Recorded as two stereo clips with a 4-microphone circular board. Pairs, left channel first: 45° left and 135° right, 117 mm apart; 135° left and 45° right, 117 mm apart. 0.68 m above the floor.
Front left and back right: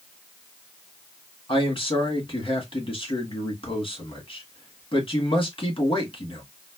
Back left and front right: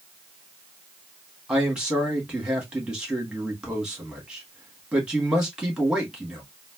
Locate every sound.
1.5 s a man speaking: 35° left, 1.6 m